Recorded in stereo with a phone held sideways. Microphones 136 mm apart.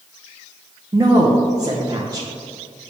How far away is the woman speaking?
About 0.6 m.